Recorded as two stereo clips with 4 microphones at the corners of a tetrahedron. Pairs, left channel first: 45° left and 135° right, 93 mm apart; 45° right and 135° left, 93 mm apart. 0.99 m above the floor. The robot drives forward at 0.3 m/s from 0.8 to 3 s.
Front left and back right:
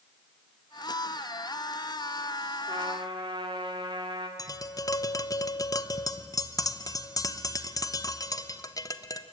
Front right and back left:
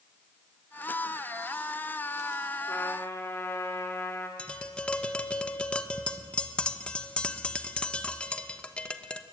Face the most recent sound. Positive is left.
turn(degrees=25)